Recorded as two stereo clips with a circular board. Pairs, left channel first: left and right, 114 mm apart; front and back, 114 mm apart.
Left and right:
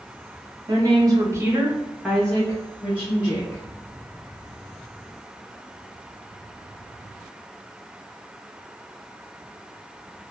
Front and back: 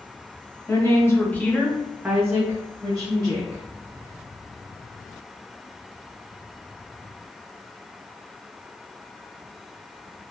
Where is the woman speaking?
55° right, 0.9 m; by 3.6 s 140° left, 1.2 m.